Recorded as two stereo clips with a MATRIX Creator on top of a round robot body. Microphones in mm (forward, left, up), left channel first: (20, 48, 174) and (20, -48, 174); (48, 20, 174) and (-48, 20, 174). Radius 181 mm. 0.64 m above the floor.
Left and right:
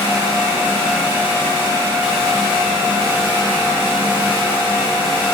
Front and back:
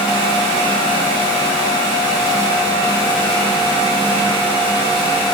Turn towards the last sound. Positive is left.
No sound to turn to.